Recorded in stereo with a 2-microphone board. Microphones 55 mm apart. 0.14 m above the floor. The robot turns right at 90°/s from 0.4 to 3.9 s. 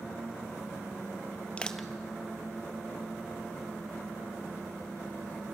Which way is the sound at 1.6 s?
20° left (ahead or behind).